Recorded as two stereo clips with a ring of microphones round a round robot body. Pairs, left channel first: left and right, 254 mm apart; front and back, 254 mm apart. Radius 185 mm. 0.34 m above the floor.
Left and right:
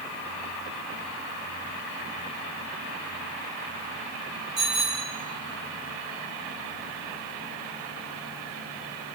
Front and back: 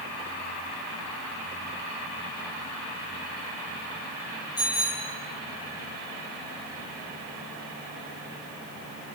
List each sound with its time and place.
4.6 s a bicycle bell: 80° right, 9 m